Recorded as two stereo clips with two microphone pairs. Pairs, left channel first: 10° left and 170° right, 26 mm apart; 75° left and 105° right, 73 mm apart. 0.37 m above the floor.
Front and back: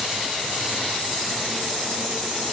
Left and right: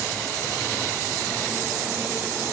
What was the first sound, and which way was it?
Only background noise.